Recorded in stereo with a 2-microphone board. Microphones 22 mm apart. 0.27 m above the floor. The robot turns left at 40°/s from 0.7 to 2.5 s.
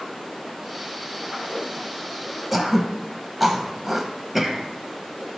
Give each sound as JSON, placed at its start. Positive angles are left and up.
{"t": 2.5, "sound": "throat clearing", "side_deg": -5, "distance_m": 0.6}